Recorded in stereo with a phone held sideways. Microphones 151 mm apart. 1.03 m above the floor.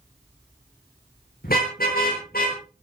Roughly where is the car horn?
Left.